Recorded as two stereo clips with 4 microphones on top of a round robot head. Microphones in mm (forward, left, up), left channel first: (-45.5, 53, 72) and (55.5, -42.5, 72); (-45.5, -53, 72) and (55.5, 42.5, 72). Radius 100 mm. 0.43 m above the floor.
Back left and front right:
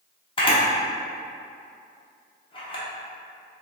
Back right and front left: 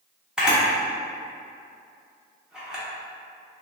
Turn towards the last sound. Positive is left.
turn(degrees=125)